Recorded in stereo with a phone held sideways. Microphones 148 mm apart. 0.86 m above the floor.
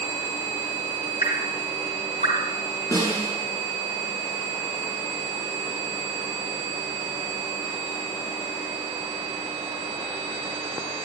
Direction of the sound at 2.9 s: 25° left (ahead or behind).